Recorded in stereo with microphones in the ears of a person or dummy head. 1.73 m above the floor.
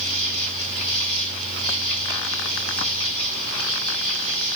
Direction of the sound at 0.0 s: 5° left (ahead or behind).